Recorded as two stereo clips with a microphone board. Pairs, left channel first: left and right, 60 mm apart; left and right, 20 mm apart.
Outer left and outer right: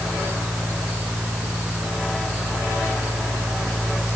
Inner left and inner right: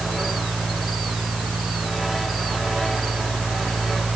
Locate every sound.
Only background noise.